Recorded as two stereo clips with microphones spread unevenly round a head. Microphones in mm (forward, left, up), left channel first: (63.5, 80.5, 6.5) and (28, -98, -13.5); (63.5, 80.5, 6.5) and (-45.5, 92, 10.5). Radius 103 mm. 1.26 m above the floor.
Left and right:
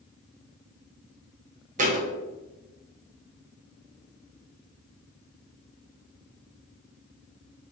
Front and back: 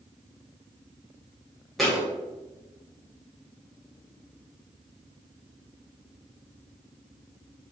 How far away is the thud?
About 0.7 m.